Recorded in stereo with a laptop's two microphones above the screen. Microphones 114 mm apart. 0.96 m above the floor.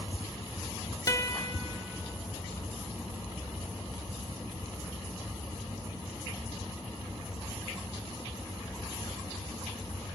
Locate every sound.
1.1 s a guitar: 30° left (ahead or behind), 0.7 m